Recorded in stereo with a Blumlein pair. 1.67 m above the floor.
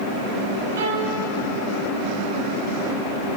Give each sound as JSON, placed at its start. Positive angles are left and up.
{"t": 0.8, "sound": "a violin", "azimuth_deg": -60, "distance_m": 5.0}